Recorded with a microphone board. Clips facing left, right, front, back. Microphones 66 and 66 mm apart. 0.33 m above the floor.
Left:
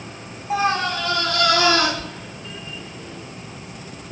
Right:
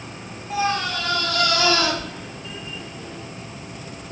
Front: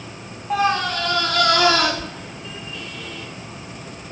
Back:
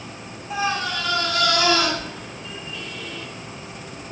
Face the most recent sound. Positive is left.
turn(degrees=35)